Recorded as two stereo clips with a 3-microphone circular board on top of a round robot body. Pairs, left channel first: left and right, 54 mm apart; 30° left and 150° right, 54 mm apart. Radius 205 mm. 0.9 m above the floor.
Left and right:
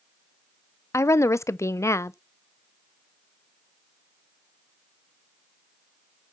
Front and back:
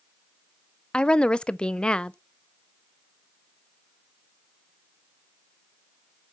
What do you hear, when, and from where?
0.9 s a woman speaking: 100° left, 0.7 m